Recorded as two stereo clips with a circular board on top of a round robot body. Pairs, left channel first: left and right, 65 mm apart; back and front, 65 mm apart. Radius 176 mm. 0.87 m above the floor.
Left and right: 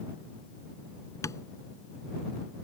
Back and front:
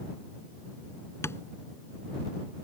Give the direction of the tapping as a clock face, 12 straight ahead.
8 o'clock.